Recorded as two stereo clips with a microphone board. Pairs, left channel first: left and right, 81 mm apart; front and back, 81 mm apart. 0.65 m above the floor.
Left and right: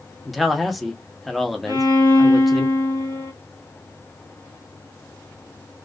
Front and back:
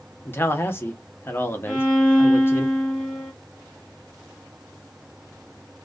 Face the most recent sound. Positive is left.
turn(degrees=80)